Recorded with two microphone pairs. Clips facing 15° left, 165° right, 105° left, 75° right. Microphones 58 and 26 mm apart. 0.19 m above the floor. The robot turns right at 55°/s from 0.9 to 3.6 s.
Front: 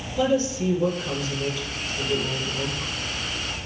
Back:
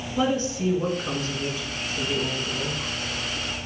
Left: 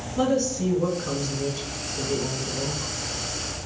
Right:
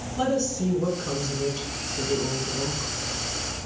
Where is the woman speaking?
170° left, 1.3 m; by 2.9 s 80° right, 1.3 m.